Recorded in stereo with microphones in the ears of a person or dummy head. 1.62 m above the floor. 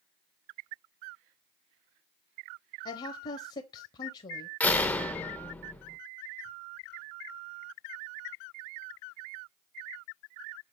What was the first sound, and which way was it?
A woman speaking, 30° left (ahead or behind).